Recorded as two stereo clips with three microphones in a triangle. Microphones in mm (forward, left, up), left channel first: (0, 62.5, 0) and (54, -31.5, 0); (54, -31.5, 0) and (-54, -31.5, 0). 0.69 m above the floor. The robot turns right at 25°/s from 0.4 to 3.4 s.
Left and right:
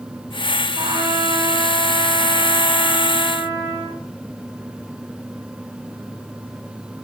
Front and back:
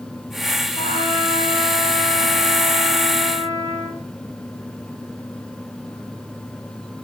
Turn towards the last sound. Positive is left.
turn(degrees=50)